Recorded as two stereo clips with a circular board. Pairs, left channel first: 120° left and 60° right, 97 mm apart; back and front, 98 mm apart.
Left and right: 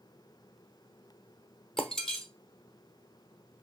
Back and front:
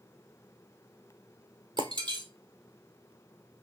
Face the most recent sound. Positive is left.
turn(degrees=35)